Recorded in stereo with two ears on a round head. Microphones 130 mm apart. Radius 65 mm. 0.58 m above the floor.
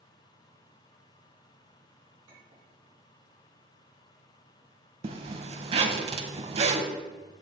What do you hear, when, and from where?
2.3 s a clink: 45° right (ahead or behind), 3 m
5.0 s a zipper: 40° right (ahead or behind), 0.7 m